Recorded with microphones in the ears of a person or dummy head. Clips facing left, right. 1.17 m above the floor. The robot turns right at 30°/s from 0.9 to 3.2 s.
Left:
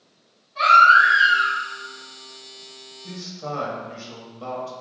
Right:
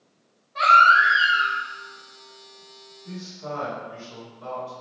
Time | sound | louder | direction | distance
0.6 | a baby crying | left 2 dB | 50° right (ahead or behind) | 1.1 m
3.0 | a man speaking | left 2 dB | 65° left (ahead or behind) | 1.1 m